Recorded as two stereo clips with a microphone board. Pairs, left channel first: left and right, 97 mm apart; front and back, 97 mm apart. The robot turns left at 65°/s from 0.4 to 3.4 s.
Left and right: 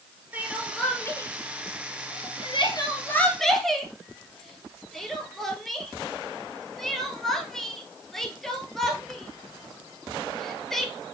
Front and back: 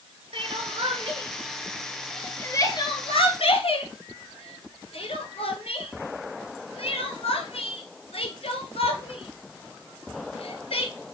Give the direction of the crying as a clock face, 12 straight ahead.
5 o'clock.